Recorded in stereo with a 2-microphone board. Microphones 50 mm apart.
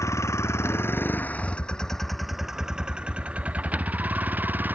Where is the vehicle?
70° left (ahead or behind); by 4.8 s 35° right (ahead or behind).